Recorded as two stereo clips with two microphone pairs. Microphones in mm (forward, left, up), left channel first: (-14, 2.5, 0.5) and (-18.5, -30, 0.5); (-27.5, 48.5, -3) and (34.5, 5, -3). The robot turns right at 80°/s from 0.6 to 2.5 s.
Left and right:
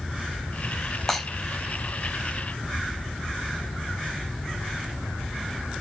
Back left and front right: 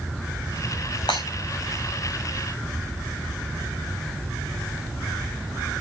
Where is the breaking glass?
160° left, 4.5 m; by 1.2 s 170° left, 4.5 m.